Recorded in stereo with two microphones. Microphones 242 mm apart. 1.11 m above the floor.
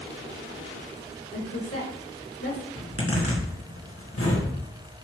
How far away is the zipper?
About 2 m.